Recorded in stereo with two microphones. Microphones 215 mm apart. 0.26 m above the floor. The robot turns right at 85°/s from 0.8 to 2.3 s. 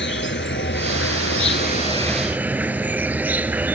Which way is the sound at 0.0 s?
60° left.